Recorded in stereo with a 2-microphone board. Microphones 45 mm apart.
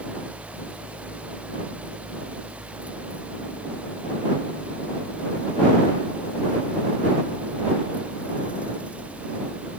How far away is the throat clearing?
No throat clearing in this recording.